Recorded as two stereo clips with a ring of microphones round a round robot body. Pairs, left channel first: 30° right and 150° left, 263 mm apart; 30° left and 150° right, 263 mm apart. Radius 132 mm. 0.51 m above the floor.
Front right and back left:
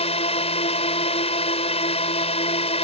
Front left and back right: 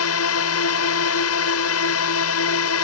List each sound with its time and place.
0.0 s a drone: 35° left